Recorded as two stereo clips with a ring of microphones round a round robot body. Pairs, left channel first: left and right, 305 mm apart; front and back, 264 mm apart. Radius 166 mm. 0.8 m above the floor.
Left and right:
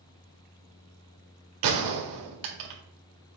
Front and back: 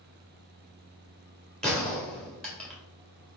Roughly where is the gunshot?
Right.